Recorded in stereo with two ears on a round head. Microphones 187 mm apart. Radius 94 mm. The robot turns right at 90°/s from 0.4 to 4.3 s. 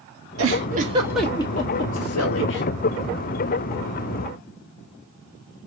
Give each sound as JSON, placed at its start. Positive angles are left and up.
{"t": 0.4, "sound": "a giggle", "side_deg": -65, "distance_m": 0.7}